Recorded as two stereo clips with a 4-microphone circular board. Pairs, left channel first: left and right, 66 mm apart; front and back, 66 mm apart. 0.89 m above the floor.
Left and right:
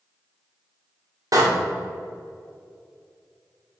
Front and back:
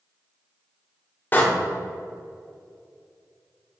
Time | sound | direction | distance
1.3 | a door slam | 60° right | 1.7 m